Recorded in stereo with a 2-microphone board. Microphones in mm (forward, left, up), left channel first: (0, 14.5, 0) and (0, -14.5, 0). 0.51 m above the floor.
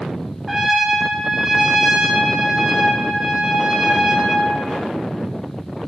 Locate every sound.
0.5 s a trumpet: 10° right (ahead or behind), 0.9 m